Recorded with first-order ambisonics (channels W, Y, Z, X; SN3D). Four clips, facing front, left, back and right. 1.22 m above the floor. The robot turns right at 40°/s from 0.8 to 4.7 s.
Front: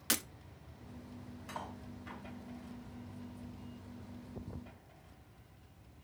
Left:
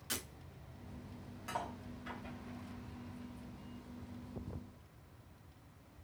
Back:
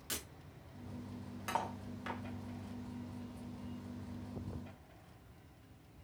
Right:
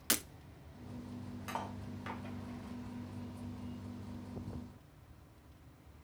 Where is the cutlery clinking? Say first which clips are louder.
Even, back 7 dB; 170° right, 2.5 m; by 2.2 s 140° right, 2.5 m.